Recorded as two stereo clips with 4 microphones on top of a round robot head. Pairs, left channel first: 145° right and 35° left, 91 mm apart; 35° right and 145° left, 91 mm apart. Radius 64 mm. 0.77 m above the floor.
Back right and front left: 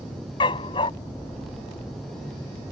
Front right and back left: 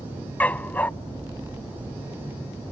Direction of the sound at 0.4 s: 110° right.